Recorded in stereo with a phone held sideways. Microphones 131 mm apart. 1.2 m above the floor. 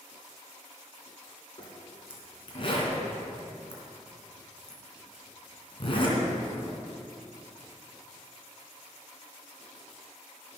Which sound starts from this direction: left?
A zipper, at 1.6 s.